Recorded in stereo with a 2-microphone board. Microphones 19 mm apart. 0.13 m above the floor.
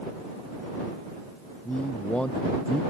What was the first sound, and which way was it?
A man speaking, 75° left (ahead or behind).